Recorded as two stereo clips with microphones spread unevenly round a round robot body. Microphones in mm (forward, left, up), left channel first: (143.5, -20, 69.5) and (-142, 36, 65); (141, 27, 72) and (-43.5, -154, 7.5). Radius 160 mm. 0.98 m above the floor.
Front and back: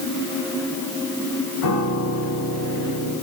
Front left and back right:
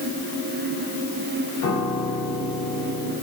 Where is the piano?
20° left, 4.5 m.